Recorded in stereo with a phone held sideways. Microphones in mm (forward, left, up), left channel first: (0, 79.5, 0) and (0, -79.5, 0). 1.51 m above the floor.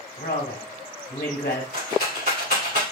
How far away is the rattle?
About 2.5 m.